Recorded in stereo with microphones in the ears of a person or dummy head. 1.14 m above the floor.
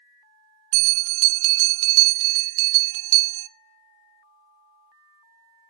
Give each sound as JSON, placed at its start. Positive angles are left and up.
{"t": 0.7, "sound": "a bell", "side_deg": -70, "distance_m": 0.5}